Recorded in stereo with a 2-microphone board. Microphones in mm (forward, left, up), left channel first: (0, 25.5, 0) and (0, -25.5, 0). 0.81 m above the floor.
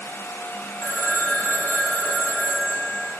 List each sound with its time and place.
0.8 s a phone ringing: 65° left (ahead or behind), 3 m